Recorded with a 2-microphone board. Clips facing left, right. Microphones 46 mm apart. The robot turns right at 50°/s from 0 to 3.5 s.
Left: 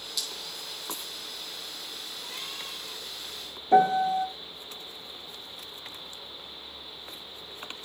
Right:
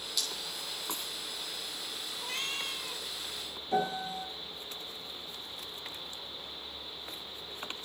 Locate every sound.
0.2 s dripping: 5° left (ahead or behind), 7.5 m; by 1.1 s 45° right (ahead or behind), 7.5 m
2.2 s a cat meowing: 90° right, 2 m; by 3.0 s 50° right, 2 m
3.7 s a piano: 50° left (ahead or behind), 0.9 m